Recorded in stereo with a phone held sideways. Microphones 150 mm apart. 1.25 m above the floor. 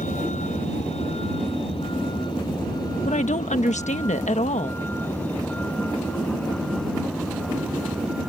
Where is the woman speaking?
55° left (ahead or behind).